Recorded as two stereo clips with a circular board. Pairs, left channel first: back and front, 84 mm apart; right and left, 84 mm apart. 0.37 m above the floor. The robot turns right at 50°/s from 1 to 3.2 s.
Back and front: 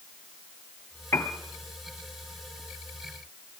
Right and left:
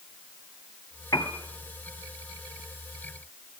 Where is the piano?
130° right, 1.2 m; by 1.4 s 115° right, 1.2 m.